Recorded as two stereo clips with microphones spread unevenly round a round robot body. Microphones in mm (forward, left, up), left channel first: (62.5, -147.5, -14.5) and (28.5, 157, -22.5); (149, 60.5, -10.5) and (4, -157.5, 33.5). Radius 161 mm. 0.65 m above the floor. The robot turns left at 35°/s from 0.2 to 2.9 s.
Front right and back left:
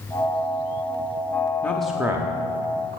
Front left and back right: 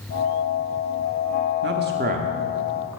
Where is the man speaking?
165° right, 0.7 m; by 3.0 s 150° left, 0.7 m.